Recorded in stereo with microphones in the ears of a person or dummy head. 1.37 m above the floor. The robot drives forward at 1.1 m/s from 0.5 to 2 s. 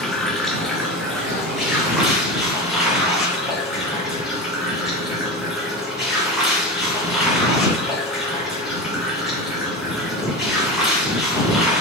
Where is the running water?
5° left (ahead or behind), 1.5 m; by 11.8 s centre (ahead or behind), 3 m.